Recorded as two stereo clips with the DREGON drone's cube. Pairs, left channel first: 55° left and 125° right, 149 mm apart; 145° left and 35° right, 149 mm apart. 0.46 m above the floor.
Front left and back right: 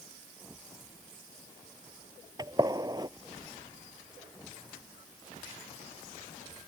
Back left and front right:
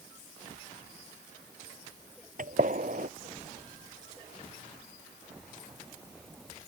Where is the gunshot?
60° right.